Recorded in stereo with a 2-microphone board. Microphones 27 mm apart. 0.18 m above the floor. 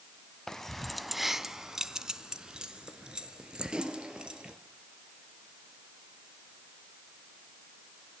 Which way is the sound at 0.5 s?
20° left (ahead or behind).